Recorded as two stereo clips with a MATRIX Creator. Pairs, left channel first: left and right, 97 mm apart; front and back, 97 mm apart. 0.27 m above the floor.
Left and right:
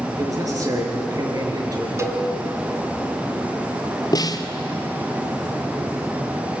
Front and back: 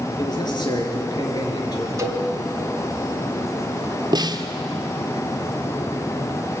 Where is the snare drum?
140° left, 1.5 m.